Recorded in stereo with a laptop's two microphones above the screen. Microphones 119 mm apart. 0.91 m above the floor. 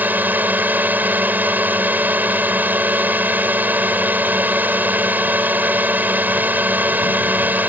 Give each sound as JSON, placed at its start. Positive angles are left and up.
{"t": 0.0, "sound": "a drone", "side_deg": -15}